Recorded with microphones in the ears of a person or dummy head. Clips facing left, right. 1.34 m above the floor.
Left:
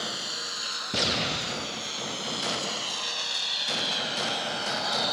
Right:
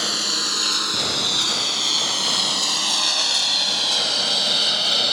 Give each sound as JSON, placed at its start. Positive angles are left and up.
{"t": 0.0, "sound": "a lawn mower", "side_deg": -65}